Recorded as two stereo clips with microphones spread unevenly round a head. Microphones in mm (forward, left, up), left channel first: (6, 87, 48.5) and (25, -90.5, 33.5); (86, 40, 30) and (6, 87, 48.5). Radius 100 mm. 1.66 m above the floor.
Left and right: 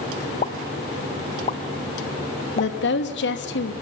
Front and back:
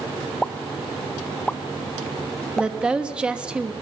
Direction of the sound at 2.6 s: 70° left.